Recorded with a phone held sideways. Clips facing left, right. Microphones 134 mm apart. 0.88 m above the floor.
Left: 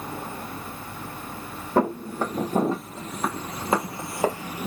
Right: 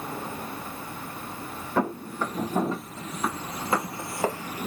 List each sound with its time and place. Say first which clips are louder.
1.8 s footsteps: left 4 dB; 40° left (ahead or behind), 1.8 m; by 4.7 s 10° left (ahead or behind), 0.8 m